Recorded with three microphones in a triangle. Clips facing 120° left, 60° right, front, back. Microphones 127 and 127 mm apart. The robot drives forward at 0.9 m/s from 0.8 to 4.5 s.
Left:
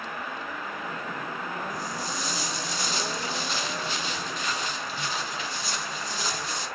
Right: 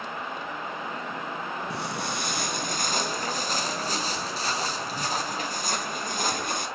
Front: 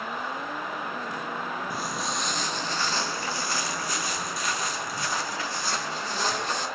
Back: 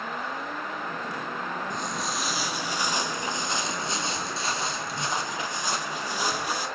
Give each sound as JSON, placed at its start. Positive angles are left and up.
{"t": 1.7, "sound": "footsteps", "azimuth_deg": -85, "distance_m": 1.4}